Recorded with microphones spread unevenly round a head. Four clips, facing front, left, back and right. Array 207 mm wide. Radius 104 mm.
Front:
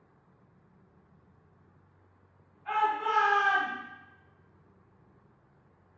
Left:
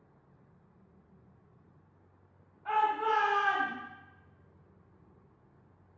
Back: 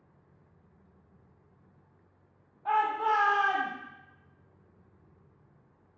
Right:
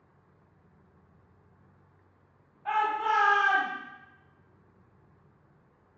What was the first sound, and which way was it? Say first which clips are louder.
A shout: right 1 dB, back 2 dB; 165° right.